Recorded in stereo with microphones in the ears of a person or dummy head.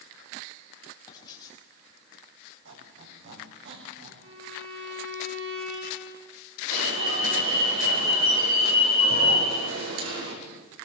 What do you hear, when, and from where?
1.1 s writing: 25° left (ahead or behind), 5 m
2.6 s a squeak: 70° right (ahead or behind), 6.5 m
4.2 s a violin: 70° right (ahead or behind), 7.5 m
6.7 s an alarm: 75° right (ahead or behind), 6 m